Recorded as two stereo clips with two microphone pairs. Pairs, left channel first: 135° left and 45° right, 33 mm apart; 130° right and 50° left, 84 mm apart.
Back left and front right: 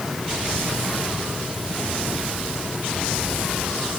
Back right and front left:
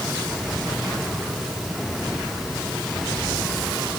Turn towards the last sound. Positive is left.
No sound to turn to.